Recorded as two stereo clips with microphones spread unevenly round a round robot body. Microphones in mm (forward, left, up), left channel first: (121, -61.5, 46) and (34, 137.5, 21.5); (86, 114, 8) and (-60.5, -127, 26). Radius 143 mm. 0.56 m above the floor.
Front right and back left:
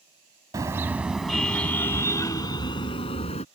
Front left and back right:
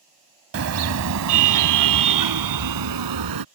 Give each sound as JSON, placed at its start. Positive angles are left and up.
{"t": 0.5, "sound": "a car horn", "azimuth_deg": -170}